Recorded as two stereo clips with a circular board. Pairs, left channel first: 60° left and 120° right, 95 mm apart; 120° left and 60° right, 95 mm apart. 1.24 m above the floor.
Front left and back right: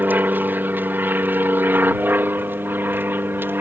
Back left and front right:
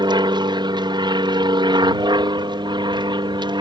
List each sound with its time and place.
0.0 s an aircraft: 55° right